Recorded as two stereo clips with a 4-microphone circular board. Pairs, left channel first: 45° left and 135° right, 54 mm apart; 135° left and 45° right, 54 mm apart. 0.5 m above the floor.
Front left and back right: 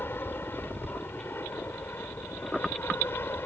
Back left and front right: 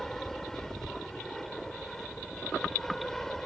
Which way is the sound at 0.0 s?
55° left.